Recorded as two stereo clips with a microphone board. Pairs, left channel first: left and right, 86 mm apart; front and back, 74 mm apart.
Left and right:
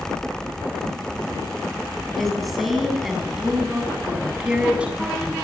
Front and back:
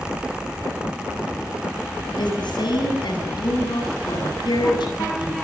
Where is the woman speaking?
5° left, 9 m; by 5.3 s 15° right, 9.5 m.